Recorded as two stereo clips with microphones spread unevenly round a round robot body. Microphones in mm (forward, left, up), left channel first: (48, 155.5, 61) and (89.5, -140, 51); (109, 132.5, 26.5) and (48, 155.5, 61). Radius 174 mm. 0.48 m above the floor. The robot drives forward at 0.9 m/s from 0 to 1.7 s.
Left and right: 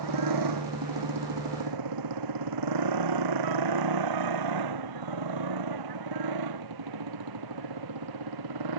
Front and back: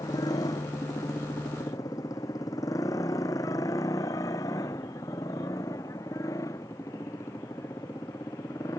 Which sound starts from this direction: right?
A motorcycle, at 0.0 s.